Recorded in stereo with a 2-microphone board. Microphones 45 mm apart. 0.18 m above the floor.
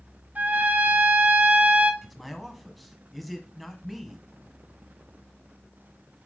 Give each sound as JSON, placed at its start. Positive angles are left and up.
{"t": 0.3, "sound": "a trumpet", "side_deg": -40, "distance_m": 0.8}
{"t": 2.0, "sound": "a man speaking", "side_deg": 0, "distance_m": 1.0}